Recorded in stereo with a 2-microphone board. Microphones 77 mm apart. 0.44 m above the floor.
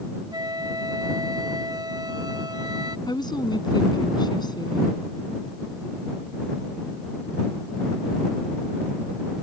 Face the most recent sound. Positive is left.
turn(degrees=70)  # may be behind; listen again after turning